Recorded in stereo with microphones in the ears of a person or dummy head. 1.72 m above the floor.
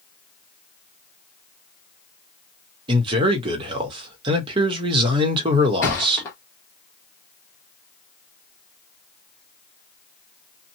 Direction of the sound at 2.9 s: 30° right (ahead or behind).